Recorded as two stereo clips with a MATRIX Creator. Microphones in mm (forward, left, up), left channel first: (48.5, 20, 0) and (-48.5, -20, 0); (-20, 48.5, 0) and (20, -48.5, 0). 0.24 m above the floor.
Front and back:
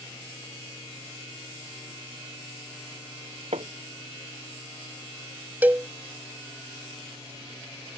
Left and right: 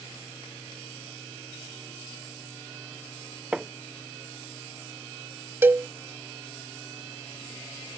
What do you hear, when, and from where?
3.5 s hammering: 150° right
5.6 s a cowbell: 110° right